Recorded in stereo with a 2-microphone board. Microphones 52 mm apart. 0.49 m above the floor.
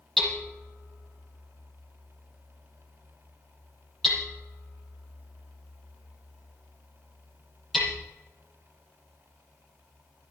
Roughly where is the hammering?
Centre.